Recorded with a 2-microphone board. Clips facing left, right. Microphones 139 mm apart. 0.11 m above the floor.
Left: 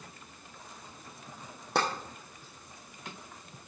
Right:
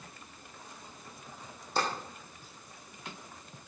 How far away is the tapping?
About 3 m.